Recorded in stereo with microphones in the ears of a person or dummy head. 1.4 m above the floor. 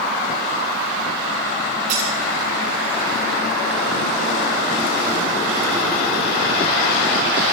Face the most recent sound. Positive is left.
turn(degrees=-70)  # may be behind; listen again after turning